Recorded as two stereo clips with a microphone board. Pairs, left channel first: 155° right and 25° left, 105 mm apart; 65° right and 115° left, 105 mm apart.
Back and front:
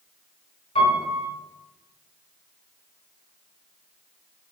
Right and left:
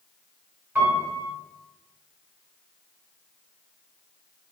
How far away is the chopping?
No chopping in this recording.